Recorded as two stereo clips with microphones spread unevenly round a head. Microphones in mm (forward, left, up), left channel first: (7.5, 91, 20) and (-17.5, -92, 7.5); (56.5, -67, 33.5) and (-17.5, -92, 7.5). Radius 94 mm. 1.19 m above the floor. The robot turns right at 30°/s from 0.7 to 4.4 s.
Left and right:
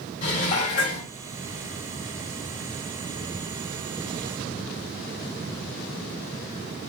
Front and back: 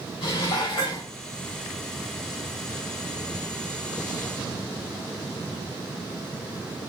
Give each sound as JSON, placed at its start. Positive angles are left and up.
{"t": 0.2, "sound": "dishes clattering", "azimuth_deg": 25, "distance_m": 2.5}